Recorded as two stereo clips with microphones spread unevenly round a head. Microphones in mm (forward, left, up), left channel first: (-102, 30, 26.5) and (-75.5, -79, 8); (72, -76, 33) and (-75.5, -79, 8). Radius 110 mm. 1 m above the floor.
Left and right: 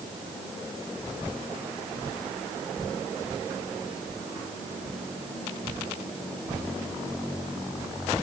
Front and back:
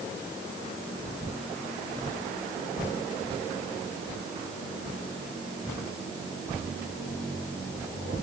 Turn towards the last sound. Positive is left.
No sound to turn to.